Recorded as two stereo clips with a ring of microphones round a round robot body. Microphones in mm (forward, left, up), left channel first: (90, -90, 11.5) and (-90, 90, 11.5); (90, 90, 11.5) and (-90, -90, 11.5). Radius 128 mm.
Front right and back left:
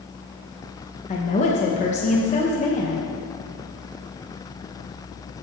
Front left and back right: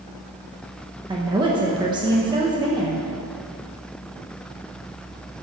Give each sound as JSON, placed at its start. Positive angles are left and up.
{"t": 1.1, "sound": "a woman speaking", "azimuth_deg": -80, "distance_m": 0.9}